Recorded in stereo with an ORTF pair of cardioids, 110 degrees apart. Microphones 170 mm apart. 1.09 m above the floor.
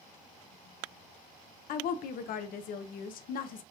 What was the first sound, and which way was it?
A woman speaking, 60° left.